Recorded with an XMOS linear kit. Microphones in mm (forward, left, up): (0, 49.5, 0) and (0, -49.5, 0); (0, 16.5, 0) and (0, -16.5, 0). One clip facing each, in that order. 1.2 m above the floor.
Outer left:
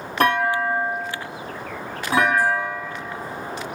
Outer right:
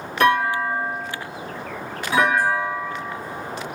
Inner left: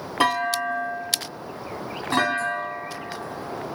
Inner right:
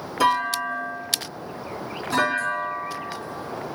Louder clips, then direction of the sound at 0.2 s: Outer right 1 dB, inner right 1 dB; 35° left (ahead or behind).